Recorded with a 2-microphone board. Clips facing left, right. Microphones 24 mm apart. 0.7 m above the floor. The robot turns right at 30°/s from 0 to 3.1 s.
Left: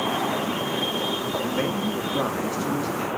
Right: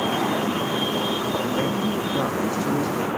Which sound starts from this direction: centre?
A man speaking, at 1.4 s.